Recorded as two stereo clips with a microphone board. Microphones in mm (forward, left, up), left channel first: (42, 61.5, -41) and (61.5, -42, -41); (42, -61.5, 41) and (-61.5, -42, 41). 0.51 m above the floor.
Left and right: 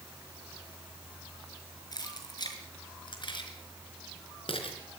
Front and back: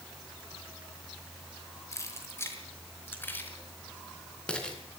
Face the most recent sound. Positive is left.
turn(degrees=70)